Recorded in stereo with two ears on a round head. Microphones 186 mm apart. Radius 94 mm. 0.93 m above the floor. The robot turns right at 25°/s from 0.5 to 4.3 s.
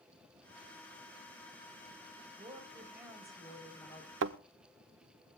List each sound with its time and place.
2.4 s a woman speaking: 25° right, 4 m; by 4.1 s 20° left, 4 m
4.2 s a thud: 60° right (ahead or behind), 0.8 m